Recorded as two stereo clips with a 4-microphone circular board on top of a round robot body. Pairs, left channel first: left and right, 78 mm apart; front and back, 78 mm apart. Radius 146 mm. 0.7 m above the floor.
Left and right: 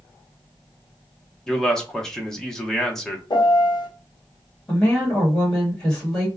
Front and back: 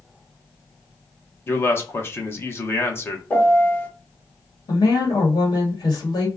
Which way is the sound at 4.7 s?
15° left.